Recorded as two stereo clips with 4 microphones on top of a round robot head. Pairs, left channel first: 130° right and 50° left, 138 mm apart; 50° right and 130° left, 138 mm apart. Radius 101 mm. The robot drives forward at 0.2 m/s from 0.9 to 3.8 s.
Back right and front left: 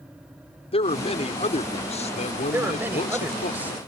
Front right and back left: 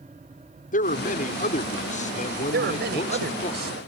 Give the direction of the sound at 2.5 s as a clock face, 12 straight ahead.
8 o'clock.